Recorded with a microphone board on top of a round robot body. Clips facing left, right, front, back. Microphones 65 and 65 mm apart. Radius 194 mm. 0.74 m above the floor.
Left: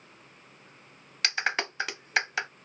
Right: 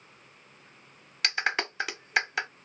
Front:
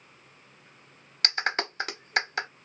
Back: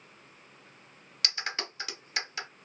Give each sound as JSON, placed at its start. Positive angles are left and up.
{"t": 1.2, "sound": "a clap", "azimuth_deg": 0, "distance_m": 0.8}